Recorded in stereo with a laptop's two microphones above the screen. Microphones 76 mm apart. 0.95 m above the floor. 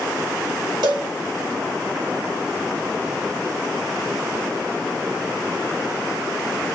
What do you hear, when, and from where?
0.8 s a cowbell: 75° right (ahead or behind), 1.5 m